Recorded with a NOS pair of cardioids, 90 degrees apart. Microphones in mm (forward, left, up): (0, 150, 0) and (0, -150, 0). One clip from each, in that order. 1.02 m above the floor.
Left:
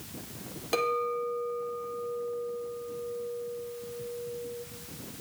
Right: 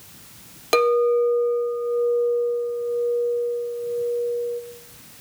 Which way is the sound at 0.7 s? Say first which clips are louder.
Right 11 dB; 45° right.